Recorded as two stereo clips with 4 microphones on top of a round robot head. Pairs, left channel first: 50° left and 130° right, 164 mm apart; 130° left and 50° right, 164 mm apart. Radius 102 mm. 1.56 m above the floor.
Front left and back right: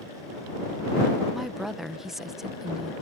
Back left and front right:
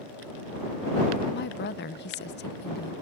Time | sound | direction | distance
1.3 | a woman speaking | 145° left | ?